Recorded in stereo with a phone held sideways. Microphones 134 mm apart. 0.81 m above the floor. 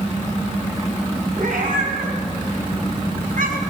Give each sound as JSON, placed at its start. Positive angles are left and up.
{"t": 1.4, "sound": "a cat meowing", "side_deg": -85, "distance_m": 4.0}